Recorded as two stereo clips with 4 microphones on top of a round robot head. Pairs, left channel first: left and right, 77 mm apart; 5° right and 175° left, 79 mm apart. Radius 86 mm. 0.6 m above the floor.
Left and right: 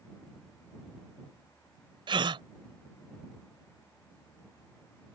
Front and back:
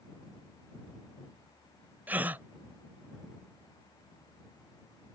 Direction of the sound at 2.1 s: 110° right.